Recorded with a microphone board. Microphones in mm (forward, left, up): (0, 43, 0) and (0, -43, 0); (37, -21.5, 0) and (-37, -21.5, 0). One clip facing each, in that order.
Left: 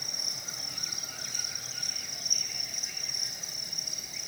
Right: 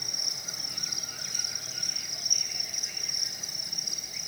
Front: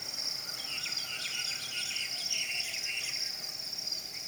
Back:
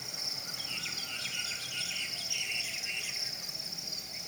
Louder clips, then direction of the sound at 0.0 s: Right 1 dB, back 1 dB; 170° right.